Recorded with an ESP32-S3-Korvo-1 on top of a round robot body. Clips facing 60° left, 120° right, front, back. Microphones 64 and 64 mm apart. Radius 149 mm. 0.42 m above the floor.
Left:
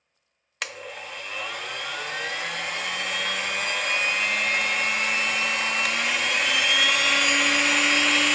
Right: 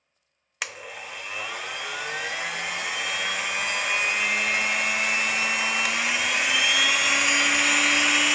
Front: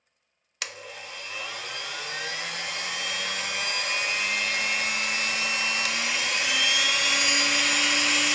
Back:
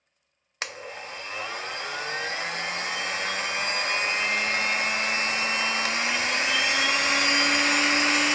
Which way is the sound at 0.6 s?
160° left.